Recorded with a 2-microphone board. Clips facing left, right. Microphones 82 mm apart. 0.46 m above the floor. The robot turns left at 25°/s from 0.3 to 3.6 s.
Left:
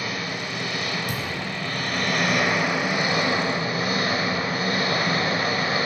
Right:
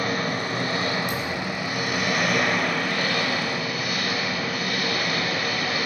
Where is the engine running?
130° right, 1.3 m; by 5.9 s 145° left, 1.3 m.